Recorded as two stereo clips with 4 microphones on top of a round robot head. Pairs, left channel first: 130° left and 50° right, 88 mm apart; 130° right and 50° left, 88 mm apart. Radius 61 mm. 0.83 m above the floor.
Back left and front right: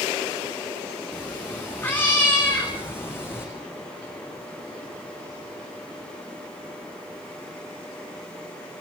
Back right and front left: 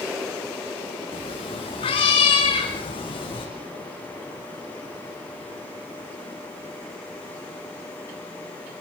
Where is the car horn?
I don't hear a car horn.